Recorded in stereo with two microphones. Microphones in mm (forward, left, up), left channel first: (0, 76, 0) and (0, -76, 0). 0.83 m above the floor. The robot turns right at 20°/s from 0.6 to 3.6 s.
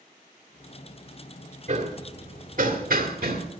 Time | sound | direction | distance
1.7 | hammering | 45° right (ahead or behind) | 1.9 m